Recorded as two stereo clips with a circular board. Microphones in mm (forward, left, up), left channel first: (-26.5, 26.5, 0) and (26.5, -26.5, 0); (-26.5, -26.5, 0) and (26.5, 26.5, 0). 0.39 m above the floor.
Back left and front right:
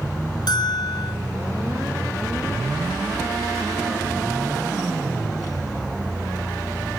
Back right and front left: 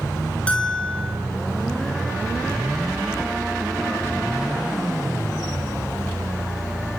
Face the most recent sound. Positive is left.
turn(degrees=150)